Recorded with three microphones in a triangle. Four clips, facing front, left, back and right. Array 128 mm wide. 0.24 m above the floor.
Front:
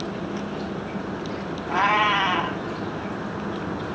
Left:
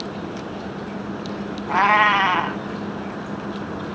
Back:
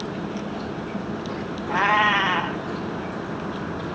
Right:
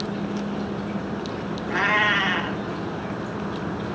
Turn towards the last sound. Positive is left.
turn(degrees=90)